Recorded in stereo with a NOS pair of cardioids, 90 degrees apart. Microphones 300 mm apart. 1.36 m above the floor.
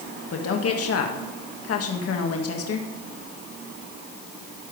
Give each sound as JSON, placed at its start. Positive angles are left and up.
{"t": 0.3, "sound": "a woman speaking", "azimuth_deg": 50, "distance_m": 1.8}